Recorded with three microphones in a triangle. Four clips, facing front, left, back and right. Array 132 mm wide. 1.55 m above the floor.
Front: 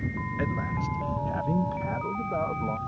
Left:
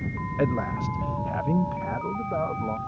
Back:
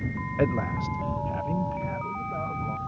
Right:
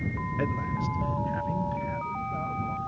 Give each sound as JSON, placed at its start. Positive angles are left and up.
{"t": 0.4, "sound": "a man speaking", "azimuth_deg": 150}